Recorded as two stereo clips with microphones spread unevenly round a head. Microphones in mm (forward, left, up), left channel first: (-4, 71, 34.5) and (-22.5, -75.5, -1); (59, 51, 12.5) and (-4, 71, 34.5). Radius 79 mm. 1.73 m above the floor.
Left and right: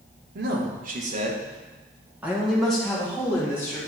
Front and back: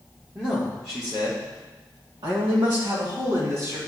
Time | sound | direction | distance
0.3 | a man speaking | 115° right | 1.8 m